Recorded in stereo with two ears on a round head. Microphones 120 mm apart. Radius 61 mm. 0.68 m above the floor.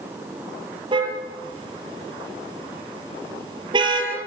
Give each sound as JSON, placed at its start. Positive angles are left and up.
{"t": 0.9, "sound": "a car horn", "side_deg": -40, "distance_m": 6.5}